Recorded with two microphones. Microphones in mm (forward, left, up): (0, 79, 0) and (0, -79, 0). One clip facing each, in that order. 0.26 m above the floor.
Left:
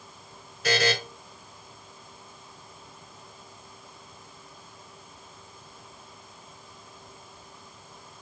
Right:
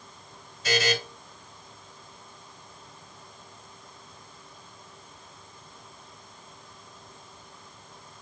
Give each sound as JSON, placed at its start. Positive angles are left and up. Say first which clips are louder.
{"t": 0.6, "sound": "a buzzer", "louder": "left 1 dB", "side_deg": 70, "distance_m": 3.5}